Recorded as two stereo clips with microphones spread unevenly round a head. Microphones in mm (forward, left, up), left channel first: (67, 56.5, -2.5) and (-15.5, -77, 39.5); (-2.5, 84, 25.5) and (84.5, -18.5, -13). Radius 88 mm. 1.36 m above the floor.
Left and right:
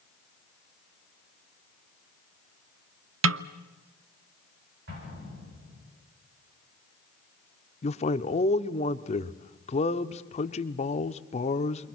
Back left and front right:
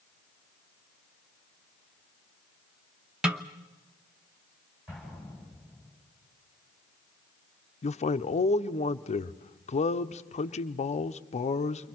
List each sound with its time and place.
3.2 s a snare drum: 135° right, 0.6 m
4.9 s an explosion: 135° right, 9.5 m
7.8 s a man speaking: 90° left, 0.9 m